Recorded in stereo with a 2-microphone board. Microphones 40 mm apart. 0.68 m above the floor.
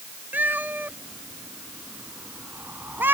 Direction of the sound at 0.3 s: 50° right (ahead or behind).